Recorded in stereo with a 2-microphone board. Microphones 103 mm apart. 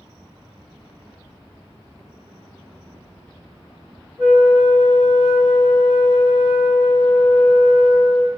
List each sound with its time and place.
4.2 s a flute: centre (ahead or behind), 1.0 m